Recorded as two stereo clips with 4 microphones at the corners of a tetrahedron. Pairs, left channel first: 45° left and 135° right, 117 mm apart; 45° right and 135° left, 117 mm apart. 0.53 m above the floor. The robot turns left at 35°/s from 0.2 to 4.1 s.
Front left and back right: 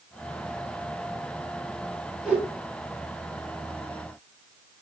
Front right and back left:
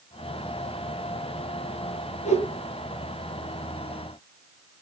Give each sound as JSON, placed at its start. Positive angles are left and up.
{"t": 2.2, "sound": "a whoosh", "azimuth_deg": -50, "distance_m": 4.5}